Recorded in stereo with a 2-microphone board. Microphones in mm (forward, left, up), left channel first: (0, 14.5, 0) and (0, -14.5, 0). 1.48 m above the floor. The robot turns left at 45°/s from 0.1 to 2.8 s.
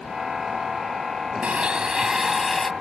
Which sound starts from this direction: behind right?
A blender, at 1.4 s.